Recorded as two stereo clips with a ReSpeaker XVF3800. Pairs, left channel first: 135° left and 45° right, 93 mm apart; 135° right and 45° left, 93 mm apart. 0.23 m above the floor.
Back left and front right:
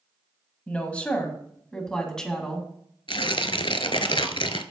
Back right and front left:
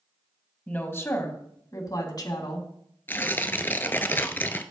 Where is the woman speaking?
170° right, 1.4 m; by 2.7 s 140° right, 2 m.